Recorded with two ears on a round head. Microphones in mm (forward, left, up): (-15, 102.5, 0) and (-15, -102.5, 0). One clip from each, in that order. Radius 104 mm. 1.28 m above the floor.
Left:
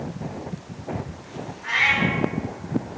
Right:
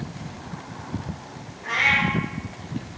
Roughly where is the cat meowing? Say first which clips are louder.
Even; left.